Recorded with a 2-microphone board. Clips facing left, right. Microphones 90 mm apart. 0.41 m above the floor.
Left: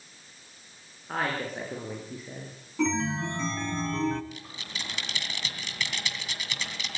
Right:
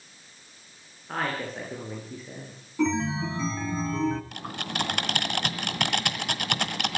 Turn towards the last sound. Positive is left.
turn(degrees=-60)  # may be behind; listen again after turning